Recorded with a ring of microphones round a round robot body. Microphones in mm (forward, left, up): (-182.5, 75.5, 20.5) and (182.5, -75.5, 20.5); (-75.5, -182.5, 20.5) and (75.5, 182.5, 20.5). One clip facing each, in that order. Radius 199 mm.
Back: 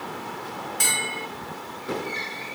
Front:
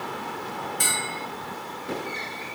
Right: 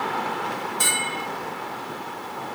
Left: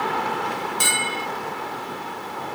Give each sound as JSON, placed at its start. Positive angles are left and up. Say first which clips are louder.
{"t": 0.8, "sound": "a bell", "louder": "even, left 2 dB", "azimuth_deg": 135, "distance_m": 1.5}